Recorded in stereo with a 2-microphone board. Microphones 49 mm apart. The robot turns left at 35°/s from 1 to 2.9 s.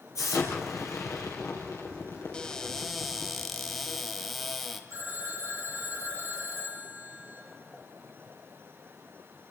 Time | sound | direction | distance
0.1 | an explosion | 105° left | 4.5 m
2.3 | a cupboard door | 15° left (ahead or behind) | 1.8 m
4.9 | a phone ringing | 85° right | 8 m